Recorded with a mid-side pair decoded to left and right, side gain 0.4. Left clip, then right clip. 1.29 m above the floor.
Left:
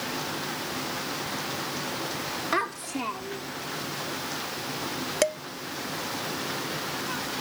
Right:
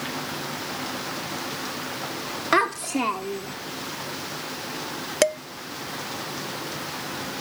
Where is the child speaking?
50° right; by 3.5 s 55° right.